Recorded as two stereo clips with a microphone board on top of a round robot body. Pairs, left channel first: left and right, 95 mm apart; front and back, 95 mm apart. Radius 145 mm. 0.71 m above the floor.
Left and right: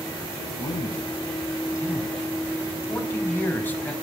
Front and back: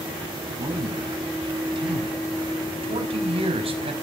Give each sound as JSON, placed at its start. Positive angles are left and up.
{"t": 0.6, "sound": "a man speaking", "azimuth_deg": 140, "distance_m": 5.0}